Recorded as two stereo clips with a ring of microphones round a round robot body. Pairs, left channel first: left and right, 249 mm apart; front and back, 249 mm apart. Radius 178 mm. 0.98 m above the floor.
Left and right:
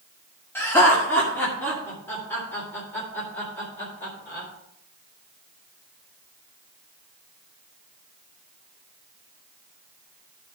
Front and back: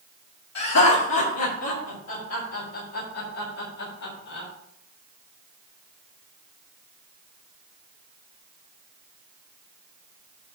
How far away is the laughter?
About 2.5 m.